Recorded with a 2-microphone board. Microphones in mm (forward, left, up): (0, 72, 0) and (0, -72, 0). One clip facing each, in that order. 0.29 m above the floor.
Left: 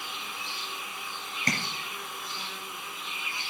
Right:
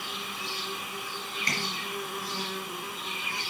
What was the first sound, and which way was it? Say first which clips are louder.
An insect: right 2 dB; 65° right (ahead or behind).